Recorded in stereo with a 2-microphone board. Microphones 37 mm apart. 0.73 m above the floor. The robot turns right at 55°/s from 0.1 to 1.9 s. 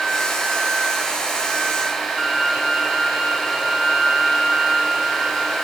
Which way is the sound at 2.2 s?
5° right (ahead or behind).